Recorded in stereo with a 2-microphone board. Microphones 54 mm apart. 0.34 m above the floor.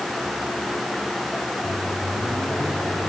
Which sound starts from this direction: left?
A microwave, at 1.6 s.